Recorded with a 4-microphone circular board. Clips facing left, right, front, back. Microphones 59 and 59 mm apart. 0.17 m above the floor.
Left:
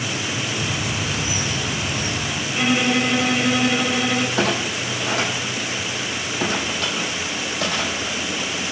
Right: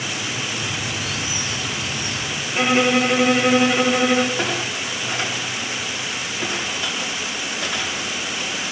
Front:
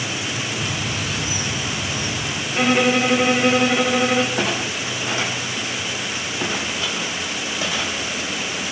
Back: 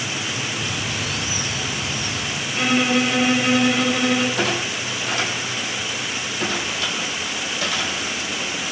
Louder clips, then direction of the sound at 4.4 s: Left 2 dB, even; 65° left.